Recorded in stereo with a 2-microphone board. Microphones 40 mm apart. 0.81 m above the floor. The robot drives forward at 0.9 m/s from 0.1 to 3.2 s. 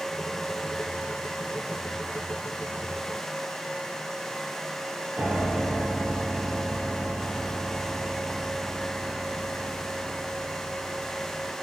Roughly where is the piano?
Right.